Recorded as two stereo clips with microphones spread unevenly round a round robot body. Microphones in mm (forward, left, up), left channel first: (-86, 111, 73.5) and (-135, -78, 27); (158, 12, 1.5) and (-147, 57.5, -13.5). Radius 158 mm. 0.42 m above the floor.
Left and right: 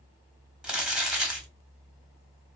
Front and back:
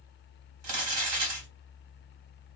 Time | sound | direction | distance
0.6 | crumpling | straight behind | 1.4 m